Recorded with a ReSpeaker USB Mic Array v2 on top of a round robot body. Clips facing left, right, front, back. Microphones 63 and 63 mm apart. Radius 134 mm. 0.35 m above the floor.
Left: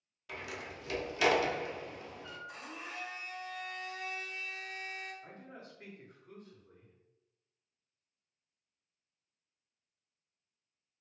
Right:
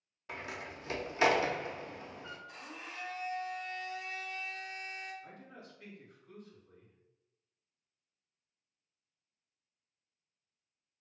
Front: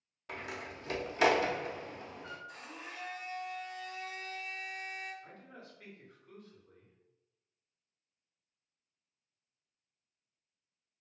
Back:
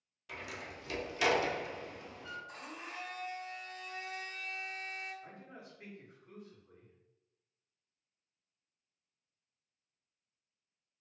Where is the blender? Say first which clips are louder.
Left 2 dB, back 1 dB; 160° left, 2.0 m.